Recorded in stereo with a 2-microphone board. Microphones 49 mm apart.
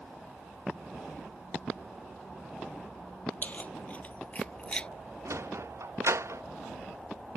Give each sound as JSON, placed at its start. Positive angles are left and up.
{"t": 3.4, "sound": "keys jangling", "side_deg": 35}
{"t": 5.2, "sound": "a sliding door", "side_deg": -75}